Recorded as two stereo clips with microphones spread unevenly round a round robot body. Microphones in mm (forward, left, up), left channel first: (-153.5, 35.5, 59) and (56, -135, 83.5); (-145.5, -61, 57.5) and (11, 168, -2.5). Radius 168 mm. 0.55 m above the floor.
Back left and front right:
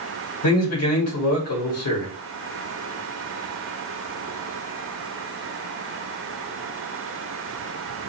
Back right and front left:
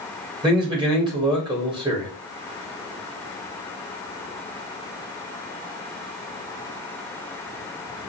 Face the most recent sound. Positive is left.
turn(degrees=125)